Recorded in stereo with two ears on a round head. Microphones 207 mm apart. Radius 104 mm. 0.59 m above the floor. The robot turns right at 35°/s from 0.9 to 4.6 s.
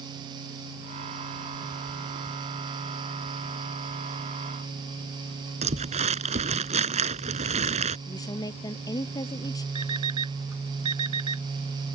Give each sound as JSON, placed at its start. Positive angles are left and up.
{"t": 5.6, "sound": "crumpling", "side_deg": -30}
{"t": 8.1, "sound": "a woman speaking", "side_deg": 15}
{"t": 9.8, "sound": "an alarm clock", "side_deg": -85}